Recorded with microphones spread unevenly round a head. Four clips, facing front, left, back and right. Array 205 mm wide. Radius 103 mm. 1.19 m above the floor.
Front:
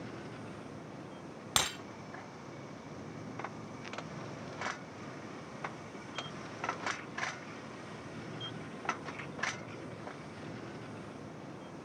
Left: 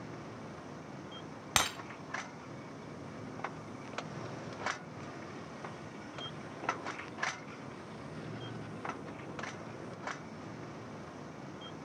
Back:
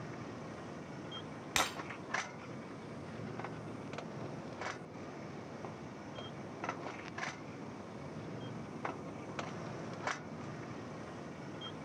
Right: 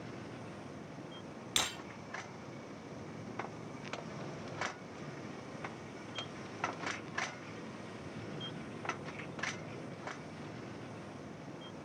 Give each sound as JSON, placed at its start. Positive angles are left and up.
{"t": 1.6, "sound": "breaking glass", "azimuth_deg": 70, "distance_m": 3.5}